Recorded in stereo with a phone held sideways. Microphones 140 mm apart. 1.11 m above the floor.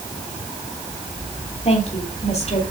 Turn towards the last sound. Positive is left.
turn(degrees=50)  # may be behind; listen again after turning